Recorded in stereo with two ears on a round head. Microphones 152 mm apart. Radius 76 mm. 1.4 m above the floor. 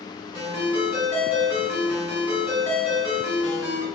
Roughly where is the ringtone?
Centre.